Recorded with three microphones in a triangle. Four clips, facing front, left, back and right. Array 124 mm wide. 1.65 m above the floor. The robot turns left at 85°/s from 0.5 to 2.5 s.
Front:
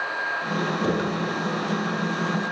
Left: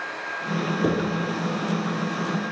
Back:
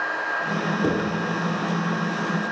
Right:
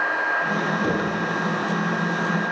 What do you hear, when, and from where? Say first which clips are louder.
0.8 s writing: left 4 dB, back 2 dB; 115° left, 2.5 m; by 1.1 s 95° left, 2.5 m